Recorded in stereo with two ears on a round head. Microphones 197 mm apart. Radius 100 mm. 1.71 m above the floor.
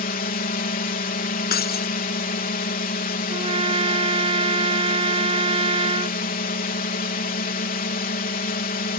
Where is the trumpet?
25° right (ahead or behind).